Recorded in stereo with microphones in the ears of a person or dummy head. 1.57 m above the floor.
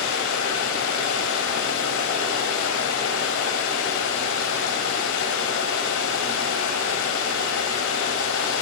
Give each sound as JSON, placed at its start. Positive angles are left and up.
{"t": 0.0, "sound": "running water", "side_deg": 70, "distance_m": 4.0}